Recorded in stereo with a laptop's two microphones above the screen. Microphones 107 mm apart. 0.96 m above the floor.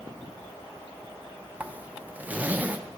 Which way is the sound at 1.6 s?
15° right (ahead or behind).